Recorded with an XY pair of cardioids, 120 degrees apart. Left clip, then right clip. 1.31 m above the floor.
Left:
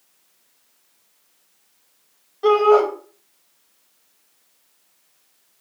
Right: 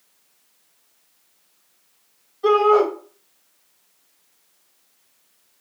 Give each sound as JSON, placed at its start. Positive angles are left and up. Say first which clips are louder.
{"t": 2.4, "sound": "a shout", "louder": "left 1 dB", "azimuth_deg": 60, "distance_m": 2.0}